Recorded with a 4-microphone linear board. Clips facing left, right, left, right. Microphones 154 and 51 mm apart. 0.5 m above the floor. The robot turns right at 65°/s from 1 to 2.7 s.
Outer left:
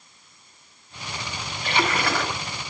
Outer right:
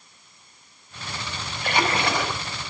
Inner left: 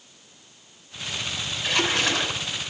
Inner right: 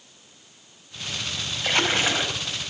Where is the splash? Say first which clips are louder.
Outer right 1 dB, inner right 1 dB; 50° right, 1.1 m; by 2.4 s straight ahead, 1.1 m.